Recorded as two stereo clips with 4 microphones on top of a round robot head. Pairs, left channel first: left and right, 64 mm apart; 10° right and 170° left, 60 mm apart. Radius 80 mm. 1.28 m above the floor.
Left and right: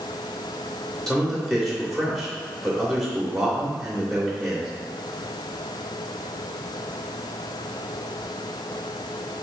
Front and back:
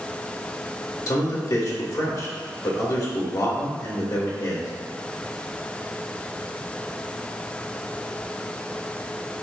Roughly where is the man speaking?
Ahead.